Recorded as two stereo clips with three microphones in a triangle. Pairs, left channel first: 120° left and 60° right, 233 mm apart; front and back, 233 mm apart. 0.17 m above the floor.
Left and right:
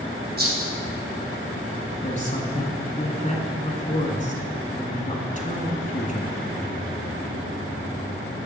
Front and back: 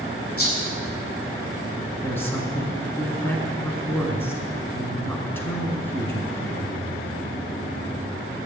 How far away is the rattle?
About 4 m.